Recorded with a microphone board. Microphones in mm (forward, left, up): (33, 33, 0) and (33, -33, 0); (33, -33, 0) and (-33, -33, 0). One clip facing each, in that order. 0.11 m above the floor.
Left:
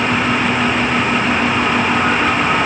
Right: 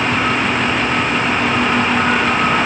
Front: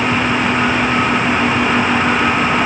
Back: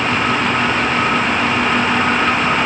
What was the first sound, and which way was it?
Only background noise.